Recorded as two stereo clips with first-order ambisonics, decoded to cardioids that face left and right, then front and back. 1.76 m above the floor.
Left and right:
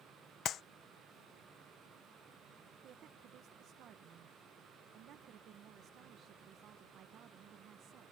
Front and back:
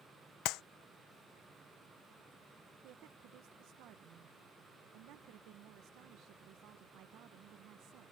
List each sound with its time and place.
0.5 s a clap: 35° left
2.8 s a woman speaking: 140° right